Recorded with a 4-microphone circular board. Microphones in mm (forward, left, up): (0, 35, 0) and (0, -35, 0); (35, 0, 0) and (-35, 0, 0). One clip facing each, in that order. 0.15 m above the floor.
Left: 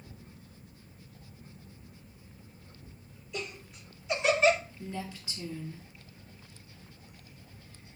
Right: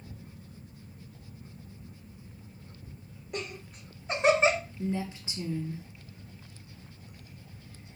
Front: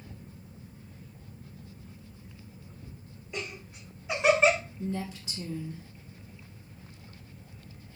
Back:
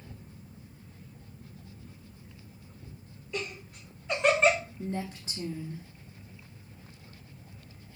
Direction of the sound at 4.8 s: 140° right.